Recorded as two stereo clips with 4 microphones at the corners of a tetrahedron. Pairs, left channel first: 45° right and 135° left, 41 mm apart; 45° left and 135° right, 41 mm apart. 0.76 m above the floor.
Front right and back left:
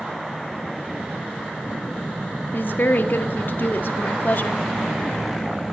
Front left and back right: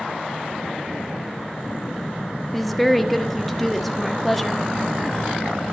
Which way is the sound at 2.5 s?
45° right.